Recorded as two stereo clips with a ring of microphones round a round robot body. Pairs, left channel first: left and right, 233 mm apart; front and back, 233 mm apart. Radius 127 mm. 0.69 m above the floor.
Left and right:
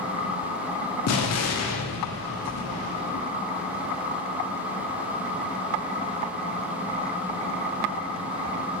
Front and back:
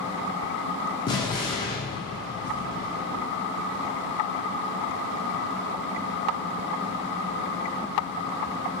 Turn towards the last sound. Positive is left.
turn(degrees=75)